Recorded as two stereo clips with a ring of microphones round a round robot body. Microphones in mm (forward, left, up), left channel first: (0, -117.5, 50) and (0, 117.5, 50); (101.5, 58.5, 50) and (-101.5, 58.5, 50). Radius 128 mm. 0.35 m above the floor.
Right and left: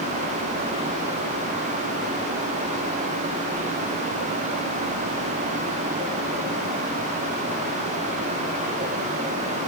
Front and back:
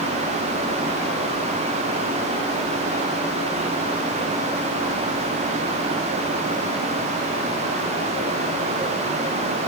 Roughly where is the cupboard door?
I don't hear a cupboard door.